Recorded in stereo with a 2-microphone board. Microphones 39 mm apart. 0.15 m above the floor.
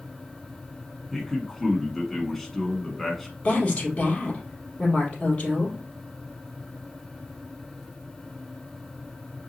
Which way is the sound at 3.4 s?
40° left (ahead or behind).